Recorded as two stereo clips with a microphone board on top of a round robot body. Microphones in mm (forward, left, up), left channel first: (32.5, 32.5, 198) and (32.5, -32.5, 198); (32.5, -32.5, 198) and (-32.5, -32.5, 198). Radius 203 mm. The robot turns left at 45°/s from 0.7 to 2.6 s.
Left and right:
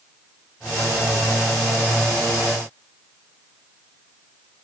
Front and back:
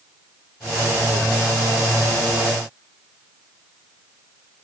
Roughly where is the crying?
No crying in this recording.